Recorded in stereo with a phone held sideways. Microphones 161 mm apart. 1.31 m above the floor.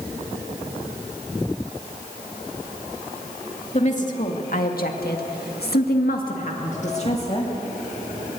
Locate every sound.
3.7 s a woman speaking: 45° left (ahead or behind), 2.5 m; by 7.5 s 35° left (ahead or behind), 2.5 m